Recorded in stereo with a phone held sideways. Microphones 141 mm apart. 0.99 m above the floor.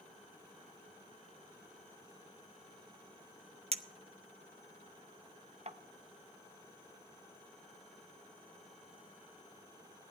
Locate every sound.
3.7 s a clink: 45° right (ahead or behind), 0.6 m